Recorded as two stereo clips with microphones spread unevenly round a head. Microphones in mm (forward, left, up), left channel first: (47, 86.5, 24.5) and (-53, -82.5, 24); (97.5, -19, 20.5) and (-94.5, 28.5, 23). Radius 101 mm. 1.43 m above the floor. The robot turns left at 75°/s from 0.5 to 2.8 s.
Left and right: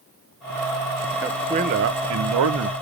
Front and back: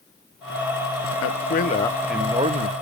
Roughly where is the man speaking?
Ahead right.